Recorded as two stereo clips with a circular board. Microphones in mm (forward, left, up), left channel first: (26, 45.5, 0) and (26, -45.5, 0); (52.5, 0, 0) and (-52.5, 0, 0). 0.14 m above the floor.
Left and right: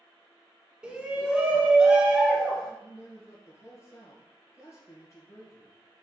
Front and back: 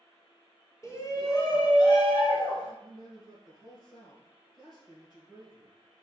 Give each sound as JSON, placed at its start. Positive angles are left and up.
{"t": 0.8, "sound": "a shout", "azimuth_deg": -20, "distance_m": 1.7}
{"t": 2.8, "sound": "a man speaking", "azimuth_deg": 40, "distance_m": 3.5}